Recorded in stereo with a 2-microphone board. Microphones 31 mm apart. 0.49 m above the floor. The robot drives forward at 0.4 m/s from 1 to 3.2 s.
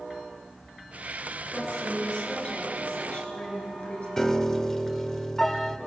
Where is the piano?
20° left (ahead or behind), 0.7 m.